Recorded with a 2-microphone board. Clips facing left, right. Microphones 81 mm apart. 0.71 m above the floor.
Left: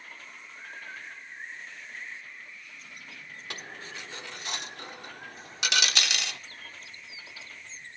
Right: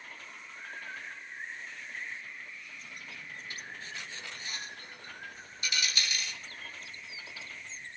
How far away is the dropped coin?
About 0.8 m.